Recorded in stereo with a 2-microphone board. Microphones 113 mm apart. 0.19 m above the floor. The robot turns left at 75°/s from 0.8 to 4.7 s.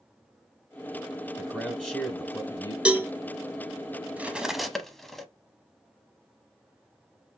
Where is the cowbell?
10° right (ahead or behind), 0.6 m; by 3.1 s 25° right (ahead or behind), 0.6 m.